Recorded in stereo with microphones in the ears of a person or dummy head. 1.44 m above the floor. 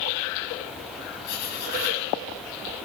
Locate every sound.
1.2 s writing: 60° left (ahead or behind), 6.5 m